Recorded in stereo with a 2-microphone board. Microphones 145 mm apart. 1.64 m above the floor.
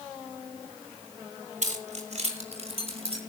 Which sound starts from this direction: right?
Keys jangling, at 1.6 s.